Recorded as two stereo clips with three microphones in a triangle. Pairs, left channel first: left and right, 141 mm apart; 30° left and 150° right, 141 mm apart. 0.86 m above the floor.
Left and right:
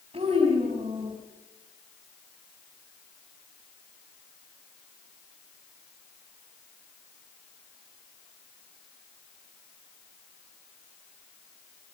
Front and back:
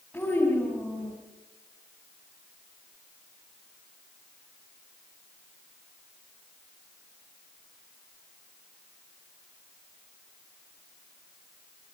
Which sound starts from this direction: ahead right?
A child speaking, at 0.1 s.